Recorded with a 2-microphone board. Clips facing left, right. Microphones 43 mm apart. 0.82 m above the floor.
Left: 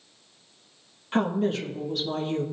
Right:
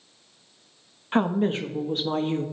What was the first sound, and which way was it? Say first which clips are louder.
A woman speaking: right 2 dB; 20° right (ahead or behind).